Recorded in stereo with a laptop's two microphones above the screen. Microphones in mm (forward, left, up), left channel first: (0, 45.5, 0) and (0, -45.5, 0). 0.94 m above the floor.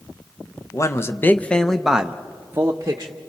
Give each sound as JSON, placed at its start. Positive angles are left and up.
{"t": 0.7, "sound": "a man speaking", "side_deg": 35, "distance_m": 0.8}